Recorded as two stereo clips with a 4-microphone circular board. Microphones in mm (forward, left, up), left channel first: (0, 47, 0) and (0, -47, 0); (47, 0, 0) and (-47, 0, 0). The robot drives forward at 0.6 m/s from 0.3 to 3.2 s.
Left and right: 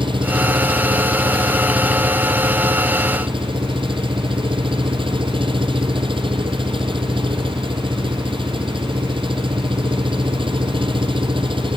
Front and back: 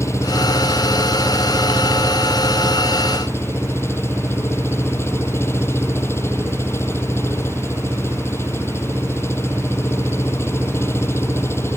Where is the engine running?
60° right; by 11.8 s 65° right.